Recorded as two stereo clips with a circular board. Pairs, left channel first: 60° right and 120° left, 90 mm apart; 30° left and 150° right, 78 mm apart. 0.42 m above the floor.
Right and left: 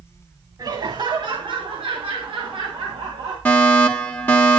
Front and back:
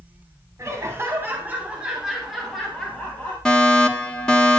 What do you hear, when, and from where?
0.6 s laughter: 160° left, 3 m; by 3.4 s 100° left, 3 m
3.5 s a fire alarm: 35° right, 1.7 m